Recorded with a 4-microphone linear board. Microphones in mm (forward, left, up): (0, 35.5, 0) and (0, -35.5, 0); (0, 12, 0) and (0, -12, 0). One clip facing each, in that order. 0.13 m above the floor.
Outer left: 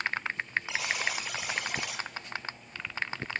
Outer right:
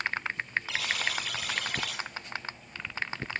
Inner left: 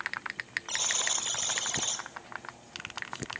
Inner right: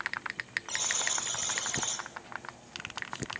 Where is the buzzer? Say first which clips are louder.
Even, inner left 3 dB; 20° left (ahead or behind), 1.2 m.